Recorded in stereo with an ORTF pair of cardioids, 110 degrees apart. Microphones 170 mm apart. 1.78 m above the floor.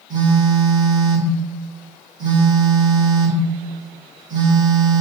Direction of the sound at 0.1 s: 25° right.